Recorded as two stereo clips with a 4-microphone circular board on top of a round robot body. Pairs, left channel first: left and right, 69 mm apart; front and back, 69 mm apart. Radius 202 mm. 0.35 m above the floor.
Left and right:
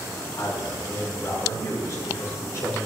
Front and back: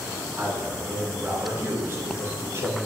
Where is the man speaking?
120° left, 6.5 m; by 2.9 s 135° left, 9 m.